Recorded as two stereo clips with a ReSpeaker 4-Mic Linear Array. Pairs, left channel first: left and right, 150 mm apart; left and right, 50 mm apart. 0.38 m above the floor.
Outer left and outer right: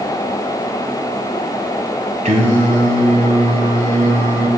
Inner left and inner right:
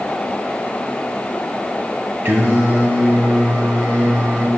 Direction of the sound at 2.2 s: 55° right (ahead or behind).